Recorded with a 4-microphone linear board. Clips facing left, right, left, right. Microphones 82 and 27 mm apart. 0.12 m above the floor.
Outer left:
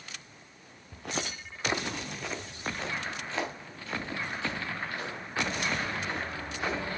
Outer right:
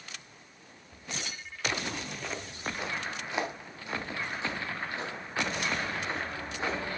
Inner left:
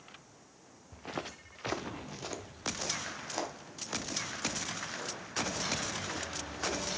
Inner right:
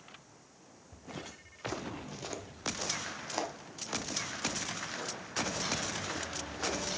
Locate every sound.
0.9 s footsteps: 75° left (ahead or behind), 0.7 m; by 6.8 s 25° right (ahead or behind), 4.5 m